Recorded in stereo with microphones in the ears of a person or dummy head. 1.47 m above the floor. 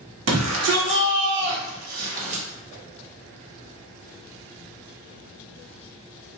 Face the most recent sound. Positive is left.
turn(degrees=-35)  # may be behind; listen again after turning